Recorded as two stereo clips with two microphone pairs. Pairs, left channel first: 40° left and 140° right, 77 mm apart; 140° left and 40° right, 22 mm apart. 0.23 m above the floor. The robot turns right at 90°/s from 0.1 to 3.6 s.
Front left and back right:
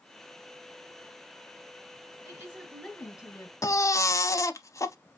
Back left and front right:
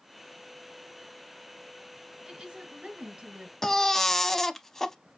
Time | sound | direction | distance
2.2 | a woman speaking | 100° right | 3 m
3.6 | a baby crying | 70° left | 0.5 m